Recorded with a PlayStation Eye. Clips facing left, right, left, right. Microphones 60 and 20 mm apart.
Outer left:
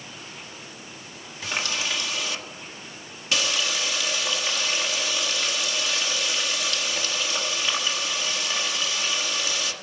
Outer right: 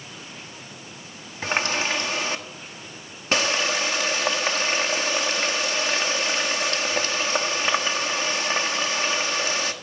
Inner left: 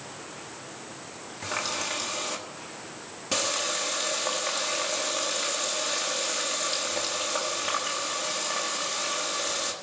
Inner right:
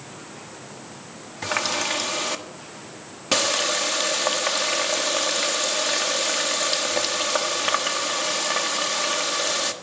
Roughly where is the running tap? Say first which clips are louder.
Outer right 5 dB, inner right 6 dB; right.